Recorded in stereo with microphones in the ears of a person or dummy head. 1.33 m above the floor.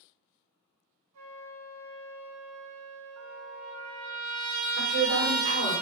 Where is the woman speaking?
40° right (ahead or behind), 0.9 m.